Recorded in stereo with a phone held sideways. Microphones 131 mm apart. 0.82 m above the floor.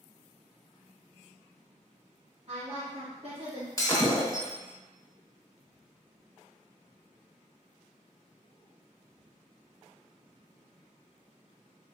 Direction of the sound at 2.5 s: 50° right (ahead or behind).